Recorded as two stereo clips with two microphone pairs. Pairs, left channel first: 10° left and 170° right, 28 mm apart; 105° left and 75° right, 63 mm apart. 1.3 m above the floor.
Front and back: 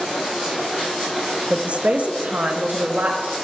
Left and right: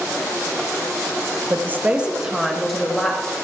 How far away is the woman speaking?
About 1.0 m.